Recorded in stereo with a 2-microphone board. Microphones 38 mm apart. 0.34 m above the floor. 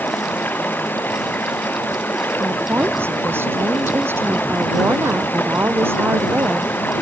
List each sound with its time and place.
0.0 s running water: 60° left (ahead or behind)
2.4 s a woman speaking: 85° right